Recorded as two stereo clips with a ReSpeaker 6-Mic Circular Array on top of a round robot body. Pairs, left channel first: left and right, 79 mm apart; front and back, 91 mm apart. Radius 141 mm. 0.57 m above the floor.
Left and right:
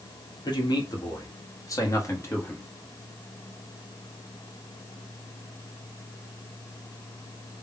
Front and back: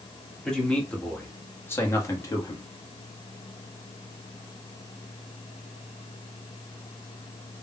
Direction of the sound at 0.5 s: 85° left.